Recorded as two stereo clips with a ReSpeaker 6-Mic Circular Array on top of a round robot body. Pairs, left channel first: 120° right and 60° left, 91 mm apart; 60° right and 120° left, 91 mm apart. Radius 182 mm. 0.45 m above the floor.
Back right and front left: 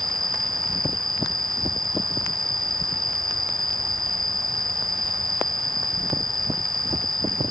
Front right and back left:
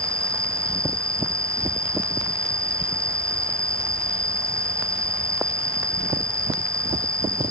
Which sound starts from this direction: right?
An insect, at 0.0 s.